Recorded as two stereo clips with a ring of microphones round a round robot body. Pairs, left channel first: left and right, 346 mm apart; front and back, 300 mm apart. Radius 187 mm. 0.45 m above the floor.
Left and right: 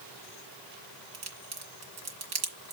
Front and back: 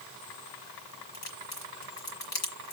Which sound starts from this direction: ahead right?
A crack, at 1.1 s.